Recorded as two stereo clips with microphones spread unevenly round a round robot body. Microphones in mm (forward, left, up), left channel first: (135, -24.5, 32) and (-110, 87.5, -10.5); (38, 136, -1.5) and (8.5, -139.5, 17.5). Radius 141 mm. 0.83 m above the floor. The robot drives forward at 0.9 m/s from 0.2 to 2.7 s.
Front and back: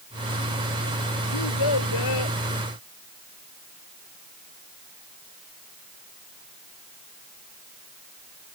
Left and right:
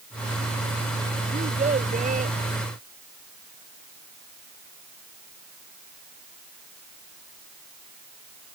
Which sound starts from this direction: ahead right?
A child speaking, at 1.3 s.